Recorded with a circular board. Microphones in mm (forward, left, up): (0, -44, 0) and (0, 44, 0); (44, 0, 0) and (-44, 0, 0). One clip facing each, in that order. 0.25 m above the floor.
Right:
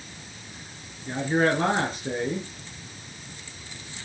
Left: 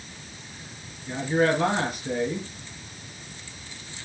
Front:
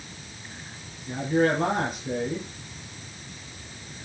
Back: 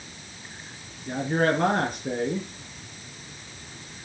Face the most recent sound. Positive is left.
turn(degrees=-150)